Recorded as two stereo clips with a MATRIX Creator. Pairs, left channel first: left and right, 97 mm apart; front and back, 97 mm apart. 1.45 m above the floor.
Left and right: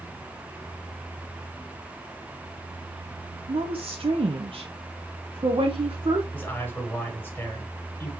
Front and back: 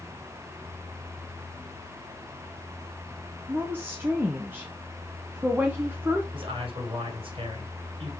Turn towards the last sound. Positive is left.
turn(degrees=160)